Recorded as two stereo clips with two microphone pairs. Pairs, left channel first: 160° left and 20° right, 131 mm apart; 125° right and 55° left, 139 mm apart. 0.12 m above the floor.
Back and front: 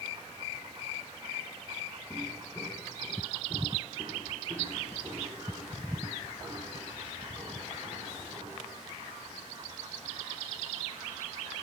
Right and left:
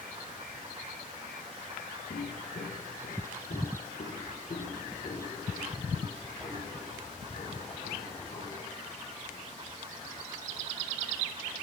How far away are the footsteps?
About 2 m.